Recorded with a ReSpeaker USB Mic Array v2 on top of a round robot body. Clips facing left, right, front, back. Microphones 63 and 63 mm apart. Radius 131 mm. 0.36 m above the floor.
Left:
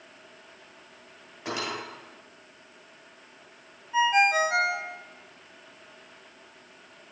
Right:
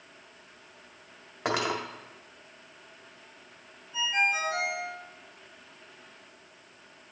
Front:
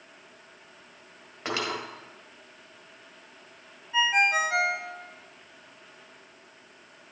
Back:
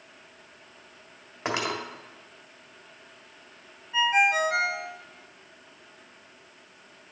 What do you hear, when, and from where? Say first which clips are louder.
1.4 s cutlery clinking: right 4 dB, back 2 dB; 110° right, 1.4 m
3.9 s a ringtone: left 7 dB, back 1 dB; 85° left, 0.8 m